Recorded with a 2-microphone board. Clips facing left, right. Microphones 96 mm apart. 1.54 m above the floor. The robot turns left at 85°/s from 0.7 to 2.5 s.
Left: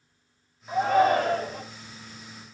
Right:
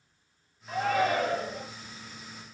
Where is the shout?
165° left, 3 m; by 1.6 s 85° left, 3 m.